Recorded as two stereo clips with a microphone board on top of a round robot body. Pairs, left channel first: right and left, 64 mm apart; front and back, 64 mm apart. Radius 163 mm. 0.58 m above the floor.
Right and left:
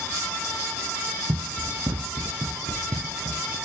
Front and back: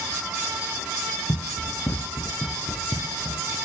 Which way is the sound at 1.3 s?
45° left.